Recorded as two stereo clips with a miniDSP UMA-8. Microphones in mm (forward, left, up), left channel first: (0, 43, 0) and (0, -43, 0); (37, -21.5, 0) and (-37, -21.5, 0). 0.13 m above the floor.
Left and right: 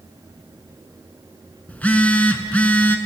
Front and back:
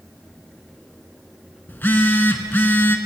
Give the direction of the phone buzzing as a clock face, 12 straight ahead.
11 o'clock.